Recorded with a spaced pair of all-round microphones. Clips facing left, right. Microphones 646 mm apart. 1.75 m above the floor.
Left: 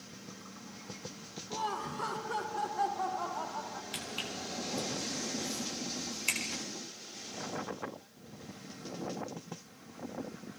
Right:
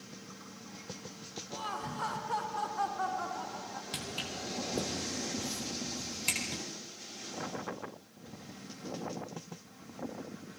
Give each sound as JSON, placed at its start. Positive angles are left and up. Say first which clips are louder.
{"t": 1.5, "sound": "laughter", "louder": "left 3 dB", "side_deg": -5, "distance_m": 1.4}
{"t": 3.9, "sound": "footsteps", "louder": "right 1 dB", "side_deg": -65, "distance_m": 4.0}